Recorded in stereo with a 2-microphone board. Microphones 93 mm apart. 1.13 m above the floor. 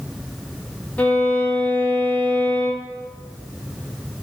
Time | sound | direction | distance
1.0 | a violin | 15° left (ahead or behind) | 1.2 m